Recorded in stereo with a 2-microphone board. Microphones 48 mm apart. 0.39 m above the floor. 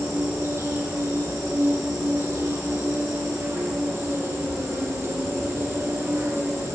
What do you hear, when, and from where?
0.0 s an insect: 55° right (ahead or behind), 9 m